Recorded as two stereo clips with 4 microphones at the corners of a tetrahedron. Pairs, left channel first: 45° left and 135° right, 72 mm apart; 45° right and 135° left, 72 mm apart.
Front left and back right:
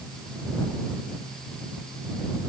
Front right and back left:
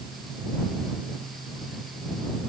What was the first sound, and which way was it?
Only background noise.